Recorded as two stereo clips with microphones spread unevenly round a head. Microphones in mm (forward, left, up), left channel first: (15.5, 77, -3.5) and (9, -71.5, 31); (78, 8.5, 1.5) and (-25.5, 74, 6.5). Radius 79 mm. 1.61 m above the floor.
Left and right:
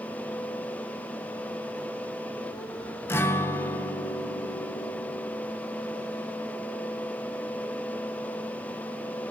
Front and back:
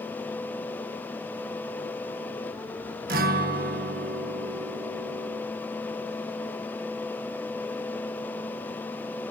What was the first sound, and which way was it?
A guitar, 165° left.